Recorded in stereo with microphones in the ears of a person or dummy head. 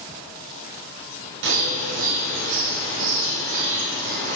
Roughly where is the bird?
Right.